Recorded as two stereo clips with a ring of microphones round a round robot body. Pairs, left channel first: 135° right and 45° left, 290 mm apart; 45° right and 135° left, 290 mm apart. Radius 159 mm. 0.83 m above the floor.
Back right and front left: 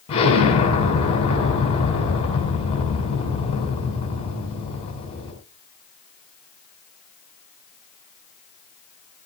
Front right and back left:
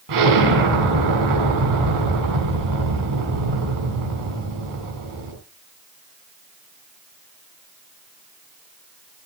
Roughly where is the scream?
I don't hear a scream.